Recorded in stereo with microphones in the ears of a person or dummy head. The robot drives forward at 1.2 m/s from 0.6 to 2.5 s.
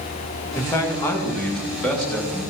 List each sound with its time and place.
0.6 s a man speaking: 15° left (ahead or behind), 2 m; by 2.4 s 10° left (ahead or behind), 4.5 m